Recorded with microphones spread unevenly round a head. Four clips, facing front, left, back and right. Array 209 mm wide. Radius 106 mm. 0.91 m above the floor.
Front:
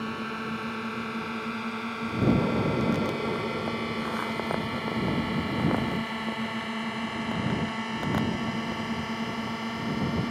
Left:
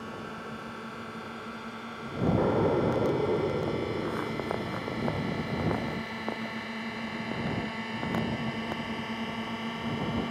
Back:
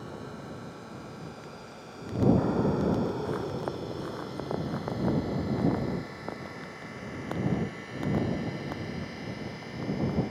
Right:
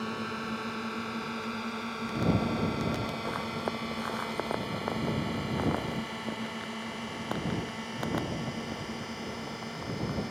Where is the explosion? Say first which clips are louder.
Left 6 dB, front 1 dB; 90° left.